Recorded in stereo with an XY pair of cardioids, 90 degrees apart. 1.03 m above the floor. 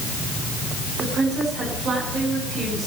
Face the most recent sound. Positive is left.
turn(degrees=-65)